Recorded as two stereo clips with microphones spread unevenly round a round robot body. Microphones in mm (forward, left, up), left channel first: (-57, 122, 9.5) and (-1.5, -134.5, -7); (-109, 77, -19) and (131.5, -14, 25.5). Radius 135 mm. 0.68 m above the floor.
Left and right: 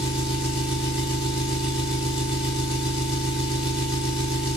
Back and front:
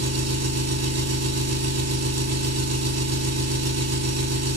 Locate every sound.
0.0 s an engine running: 10° left, 1.6 m